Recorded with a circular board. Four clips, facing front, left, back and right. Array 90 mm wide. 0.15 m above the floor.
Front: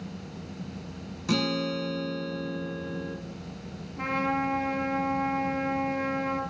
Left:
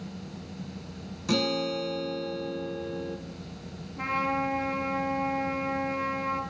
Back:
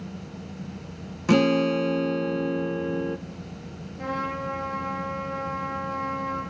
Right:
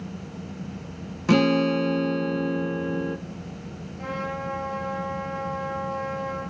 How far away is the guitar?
About 0.6 m.